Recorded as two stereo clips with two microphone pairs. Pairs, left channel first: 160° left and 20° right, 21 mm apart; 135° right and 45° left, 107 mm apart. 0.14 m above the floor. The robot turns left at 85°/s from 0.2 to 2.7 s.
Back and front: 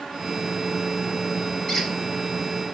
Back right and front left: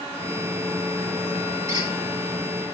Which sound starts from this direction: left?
A squeak, at 1.7 s.